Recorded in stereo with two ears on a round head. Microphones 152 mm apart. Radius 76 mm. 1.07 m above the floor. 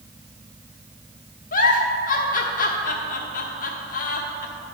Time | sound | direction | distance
1.5 | a giggle | 50° left (ahead or behind) | 1.0 m